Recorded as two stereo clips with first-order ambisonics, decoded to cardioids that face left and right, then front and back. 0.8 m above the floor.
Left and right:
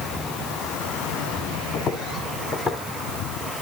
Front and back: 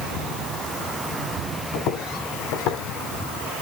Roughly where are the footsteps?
Ahead left.